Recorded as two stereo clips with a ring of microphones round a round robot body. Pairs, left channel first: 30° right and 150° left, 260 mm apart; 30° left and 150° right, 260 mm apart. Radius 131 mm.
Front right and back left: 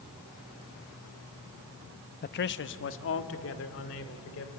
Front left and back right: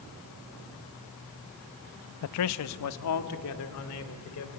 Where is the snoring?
No snoring in this recording.